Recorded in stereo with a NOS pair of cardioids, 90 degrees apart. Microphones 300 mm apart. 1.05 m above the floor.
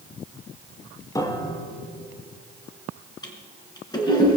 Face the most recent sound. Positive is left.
turn(degrees=15)